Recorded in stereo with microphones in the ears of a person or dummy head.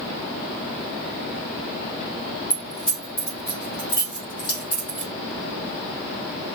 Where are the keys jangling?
30° left (ahead or behind), 2 m.